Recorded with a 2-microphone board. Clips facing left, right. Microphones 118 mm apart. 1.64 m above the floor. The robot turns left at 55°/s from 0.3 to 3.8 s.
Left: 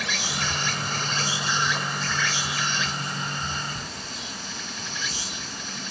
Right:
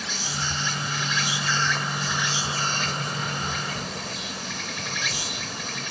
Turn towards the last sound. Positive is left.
turn(degrees=-105)